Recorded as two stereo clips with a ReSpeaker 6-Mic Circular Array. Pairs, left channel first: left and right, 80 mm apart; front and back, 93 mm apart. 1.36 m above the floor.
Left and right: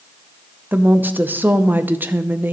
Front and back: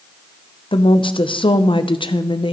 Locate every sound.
0.7 s a woman speaking: 25° right, 0.6 m